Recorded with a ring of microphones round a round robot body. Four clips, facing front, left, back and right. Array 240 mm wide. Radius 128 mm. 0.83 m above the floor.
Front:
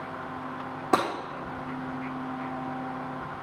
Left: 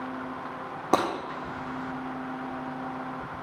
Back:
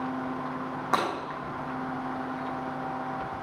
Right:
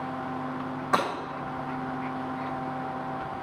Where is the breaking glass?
55° left, 4.5 m.